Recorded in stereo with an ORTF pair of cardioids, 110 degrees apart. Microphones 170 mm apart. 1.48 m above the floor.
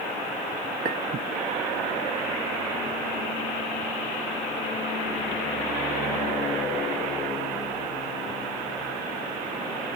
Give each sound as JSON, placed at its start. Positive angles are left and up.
{"t": 0.8, "sound": "a clink", "azimuth_deg": -65, "distance_m": 1.7}